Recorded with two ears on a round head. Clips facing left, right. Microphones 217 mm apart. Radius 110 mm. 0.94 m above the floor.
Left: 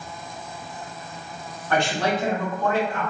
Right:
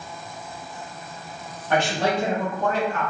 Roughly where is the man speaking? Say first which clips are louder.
Right 1 dB; centre.